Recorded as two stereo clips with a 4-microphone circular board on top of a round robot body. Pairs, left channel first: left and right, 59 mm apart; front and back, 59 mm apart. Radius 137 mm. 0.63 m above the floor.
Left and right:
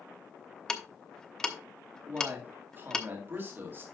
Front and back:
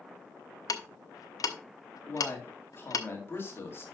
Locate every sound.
0.7 s ticking: 10° left, 1.0 m
2.1 s a man speaking: 45° right, 2 m